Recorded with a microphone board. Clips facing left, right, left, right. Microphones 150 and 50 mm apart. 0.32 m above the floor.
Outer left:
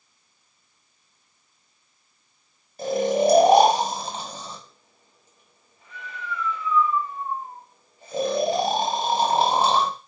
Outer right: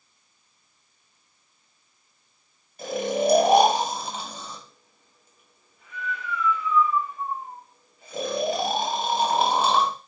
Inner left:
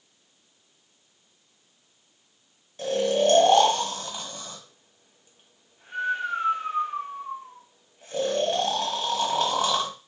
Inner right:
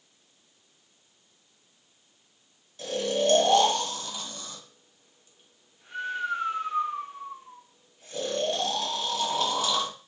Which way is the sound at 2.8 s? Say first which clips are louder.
Outer left 4 dB, inner left 4 dB; 35° left (ahead or behind).